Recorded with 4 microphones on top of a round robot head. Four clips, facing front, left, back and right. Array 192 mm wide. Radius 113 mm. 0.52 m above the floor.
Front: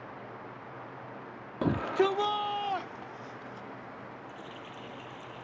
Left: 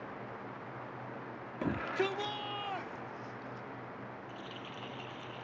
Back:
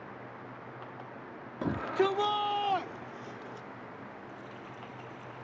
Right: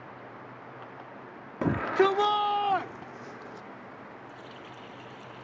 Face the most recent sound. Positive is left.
turn(degrees=15)